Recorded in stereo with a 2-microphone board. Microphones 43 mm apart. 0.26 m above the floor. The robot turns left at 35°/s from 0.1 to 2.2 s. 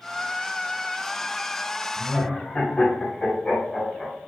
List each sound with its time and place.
2.0 s laughter: 15° left (ahead or behind), 1.5 m